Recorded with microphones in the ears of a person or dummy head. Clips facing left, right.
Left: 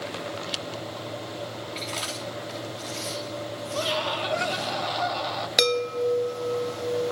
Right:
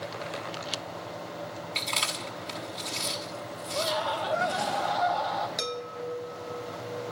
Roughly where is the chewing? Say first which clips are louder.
Left 3 dB; right.